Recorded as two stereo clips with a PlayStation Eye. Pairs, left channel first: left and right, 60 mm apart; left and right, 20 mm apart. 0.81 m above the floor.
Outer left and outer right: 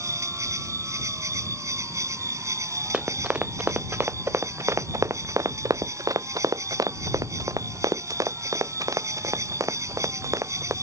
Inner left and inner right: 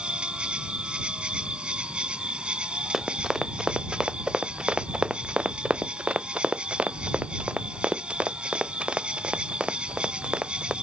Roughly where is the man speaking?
I don't hear a man speaking.